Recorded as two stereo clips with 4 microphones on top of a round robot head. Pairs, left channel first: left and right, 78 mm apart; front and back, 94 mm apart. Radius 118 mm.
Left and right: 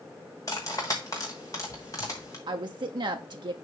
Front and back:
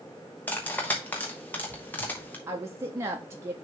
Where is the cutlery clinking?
55° left, 0.6 m.